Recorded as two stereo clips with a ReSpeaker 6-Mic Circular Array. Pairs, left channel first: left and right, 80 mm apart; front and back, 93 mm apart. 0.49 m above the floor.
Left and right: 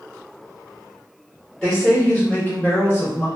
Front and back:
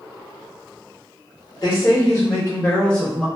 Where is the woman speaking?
15° left, 1.4 m; by 3.3 s 90° left, 1.2 m.